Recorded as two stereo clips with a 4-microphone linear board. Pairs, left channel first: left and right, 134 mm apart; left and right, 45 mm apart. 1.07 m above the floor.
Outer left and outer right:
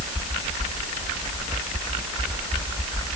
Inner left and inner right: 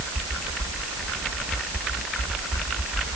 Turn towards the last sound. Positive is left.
No sound to turn to.